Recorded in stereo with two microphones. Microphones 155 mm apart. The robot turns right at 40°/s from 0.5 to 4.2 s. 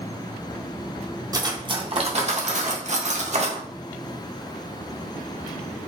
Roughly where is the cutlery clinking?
Behind right.